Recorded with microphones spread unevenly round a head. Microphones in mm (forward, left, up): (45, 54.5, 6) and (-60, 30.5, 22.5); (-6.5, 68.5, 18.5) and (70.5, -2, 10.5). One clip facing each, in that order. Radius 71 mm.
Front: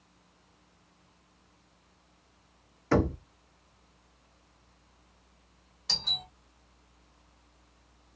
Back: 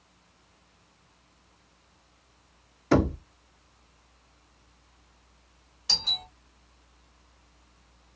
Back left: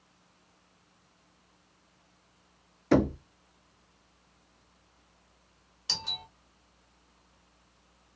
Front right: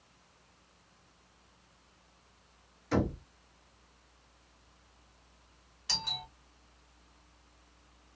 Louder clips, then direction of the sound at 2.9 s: Back 3 dB, back left 7 dB; 120° left.